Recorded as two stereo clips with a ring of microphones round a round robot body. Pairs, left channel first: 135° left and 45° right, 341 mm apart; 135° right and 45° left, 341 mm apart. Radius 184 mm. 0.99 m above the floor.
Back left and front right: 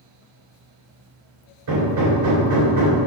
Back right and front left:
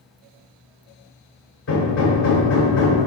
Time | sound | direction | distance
1.7 | hammering | 80° right | 2.5 m